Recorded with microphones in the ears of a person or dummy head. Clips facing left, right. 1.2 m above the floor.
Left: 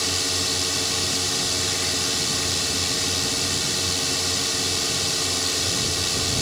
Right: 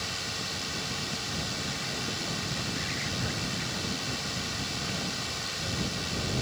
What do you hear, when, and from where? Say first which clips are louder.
0.0 s a drone: left 9 dB; 65° left (ahead or behind)